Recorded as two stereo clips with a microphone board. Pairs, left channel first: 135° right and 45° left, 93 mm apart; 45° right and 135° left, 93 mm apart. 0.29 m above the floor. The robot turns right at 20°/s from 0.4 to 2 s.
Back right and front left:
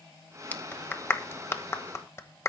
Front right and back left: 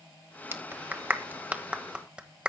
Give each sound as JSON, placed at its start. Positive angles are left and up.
{"t": 0.5, "sound": "a clap", "azimuth_deg": 170, "distance_m": 1.3}